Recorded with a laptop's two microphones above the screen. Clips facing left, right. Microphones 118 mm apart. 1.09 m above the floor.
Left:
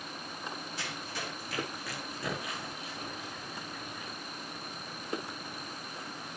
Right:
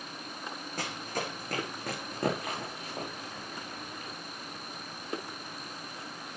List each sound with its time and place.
0.8 s running footsteps: 50° right (ahead or behind), 3.5 m; by 4.1 s 65° right (ahead or behind), 6 m